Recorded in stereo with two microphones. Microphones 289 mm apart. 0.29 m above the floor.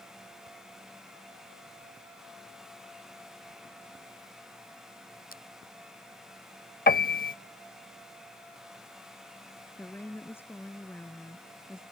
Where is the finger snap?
30° left (ahead or behind).